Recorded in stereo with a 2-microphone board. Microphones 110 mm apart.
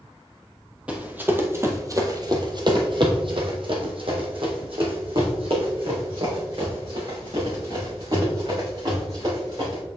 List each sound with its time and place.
0.9 s running footsteps: 10° right (ahead or behind), 1.4 m; by 9.8 s 50° right (ahead or behind), 5 m